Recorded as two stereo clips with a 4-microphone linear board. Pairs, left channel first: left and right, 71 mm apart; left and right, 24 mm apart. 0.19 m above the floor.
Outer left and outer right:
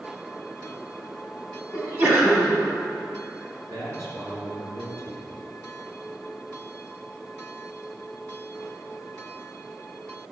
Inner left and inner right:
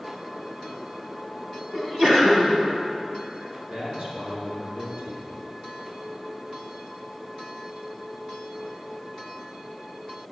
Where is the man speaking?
60° right (ahead or behind), 3 m.